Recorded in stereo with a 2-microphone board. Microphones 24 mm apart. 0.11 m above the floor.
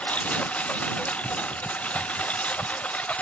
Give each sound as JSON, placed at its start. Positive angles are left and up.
{"t": 0.0, "sound": "a lawn mower", "side_deg": 90}